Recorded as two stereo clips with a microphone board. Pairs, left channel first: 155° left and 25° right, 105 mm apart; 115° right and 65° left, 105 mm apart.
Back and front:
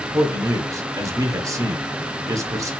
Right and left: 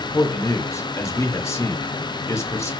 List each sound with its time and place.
0.1 s a man speaking: 65° right, 0.8 m